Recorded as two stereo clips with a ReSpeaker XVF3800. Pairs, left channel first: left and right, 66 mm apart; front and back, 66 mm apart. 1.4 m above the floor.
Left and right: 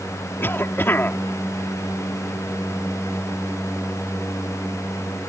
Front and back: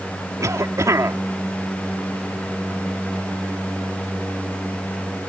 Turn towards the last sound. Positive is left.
turn(degrees=145)